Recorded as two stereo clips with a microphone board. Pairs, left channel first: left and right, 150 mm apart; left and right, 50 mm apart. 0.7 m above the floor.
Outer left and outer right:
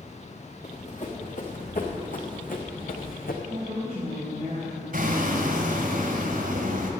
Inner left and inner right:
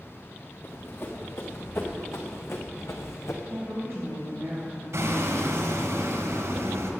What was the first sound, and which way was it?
Running footsteps, 50° left (ahead or behind).